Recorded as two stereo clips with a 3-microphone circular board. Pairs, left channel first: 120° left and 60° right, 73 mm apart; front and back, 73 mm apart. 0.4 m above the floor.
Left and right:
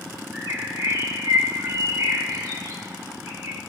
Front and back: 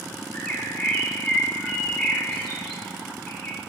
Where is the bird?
70° right, 1.3 m.